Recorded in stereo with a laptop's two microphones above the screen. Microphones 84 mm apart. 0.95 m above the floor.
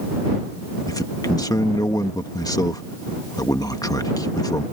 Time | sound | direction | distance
0.9 | a man speaking | 45° left (ahead or behind) | ?